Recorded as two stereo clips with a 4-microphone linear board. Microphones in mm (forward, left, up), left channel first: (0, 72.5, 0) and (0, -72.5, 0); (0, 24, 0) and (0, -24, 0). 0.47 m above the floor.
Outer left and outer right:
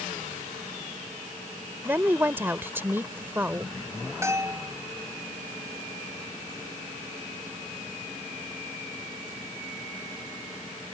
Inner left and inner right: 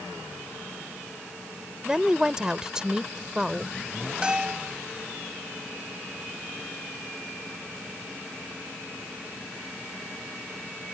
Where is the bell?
20° right (ahead or behind).